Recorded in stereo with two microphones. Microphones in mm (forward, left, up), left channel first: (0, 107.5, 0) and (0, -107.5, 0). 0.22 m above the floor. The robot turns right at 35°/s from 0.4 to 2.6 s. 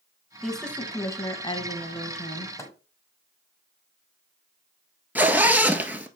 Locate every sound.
0.4 s a woman speaking: straight ahead, 1.4 m; by 2.5 s 70° left, 1.4 m
2.6 s a microwave: 15° left (ahead or behind), 1.4 m
5.2 s a zipper: 10° right (ahead or behind), 0.9 m